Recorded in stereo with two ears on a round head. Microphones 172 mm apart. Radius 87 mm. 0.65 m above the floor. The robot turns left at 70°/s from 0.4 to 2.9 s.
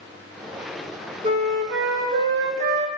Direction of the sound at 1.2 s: 30° right.